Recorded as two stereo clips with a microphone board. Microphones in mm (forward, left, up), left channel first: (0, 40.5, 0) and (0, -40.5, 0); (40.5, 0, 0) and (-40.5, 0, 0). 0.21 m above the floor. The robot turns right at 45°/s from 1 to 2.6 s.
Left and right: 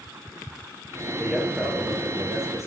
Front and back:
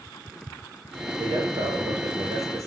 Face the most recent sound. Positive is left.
turn(degrees=-130)